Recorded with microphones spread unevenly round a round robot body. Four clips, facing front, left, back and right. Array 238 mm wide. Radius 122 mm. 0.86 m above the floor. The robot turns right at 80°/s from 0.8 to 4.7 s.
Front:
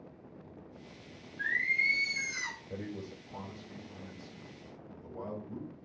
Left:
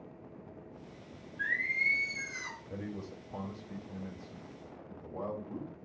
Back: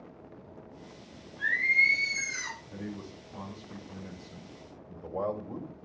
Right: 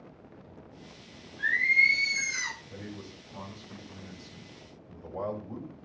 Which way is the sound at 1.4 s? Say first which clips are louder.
Right 7 dB, back 5 dB; 160° right.